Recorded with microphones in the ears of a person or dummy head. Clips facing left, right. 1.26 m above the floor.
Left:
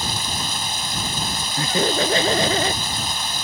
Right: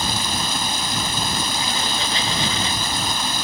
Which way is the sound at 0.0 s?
60° right (ahead or behind).